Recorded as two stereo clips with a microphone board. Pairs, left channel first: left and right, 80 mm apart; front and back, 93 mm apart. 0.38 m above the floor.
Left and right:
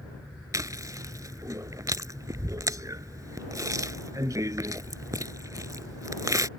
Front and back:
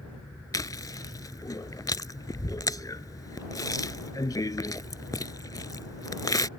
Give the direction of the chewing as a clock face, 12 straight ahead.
2 o'clock.